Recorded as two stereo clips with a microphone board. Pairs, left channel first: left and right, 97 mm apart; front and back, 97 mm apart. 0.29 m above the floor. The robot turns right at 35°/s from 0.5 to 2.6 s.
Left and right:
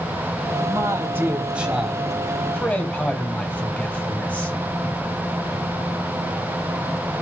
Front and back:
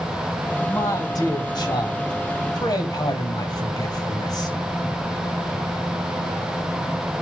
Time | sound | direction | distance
0.7 | a man speaking | 45° right | 1.7 m